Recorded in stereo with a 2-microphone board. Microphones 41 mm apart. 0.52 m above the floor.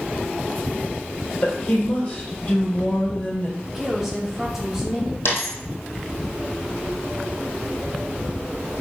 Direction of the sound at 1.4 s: 30° left (ahead or behind).